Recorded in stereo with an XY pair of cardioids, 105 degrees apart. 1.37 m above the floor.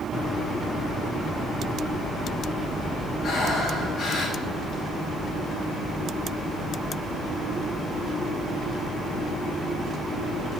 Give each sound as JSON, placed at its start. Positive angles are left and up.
{"t": 3.2, "sound": "breathing", "azimuth_deg": 65, "distance_m": 5.5}